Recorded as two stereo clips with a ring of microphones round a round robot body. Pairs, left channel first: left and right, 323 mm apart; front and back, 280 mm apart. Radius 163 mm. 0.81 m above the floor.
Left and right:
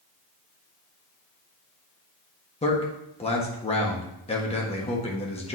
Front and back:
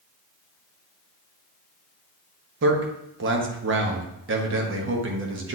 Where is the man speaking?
155° left, 1.2 m.